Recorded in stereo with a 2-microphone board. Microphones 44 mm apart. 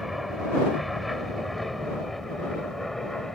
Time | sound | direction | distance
0.0 | an aircraft | centre (ahead or behind) | ?